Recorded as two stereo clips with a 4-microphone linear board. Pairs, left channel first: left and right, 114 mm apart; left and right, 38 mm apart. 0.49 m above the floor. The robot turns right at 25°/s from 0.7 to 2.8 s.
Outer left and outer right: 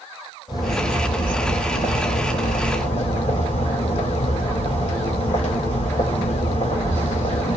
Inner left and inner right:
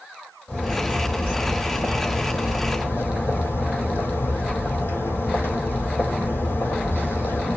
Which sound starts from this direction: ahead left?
A bird, at 0.5 s.